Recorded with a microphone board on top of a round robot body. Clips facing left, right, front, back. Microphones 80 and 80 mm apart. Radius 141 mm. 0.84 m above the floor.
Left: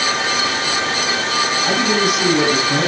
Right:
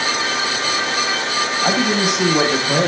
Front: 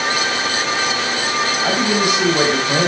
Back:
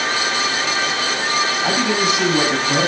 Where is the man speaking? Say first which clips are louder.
Right 1 dB, front 3 dB; 70° right, 5.5 m.